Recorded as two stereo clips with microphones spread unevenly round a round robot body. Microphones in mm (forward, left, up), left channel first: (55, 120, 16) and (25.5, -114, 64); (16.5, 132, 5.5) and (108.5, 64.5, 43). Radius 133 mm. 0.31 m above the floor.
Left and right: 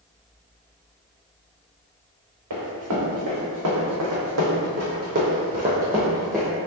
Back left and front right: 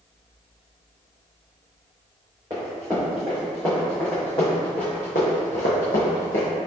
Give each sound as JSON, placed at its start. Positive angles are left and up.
{"t": 2.5, "sound": "running footsteps", "azimuth_deg": -110, "distance_m": 1.9}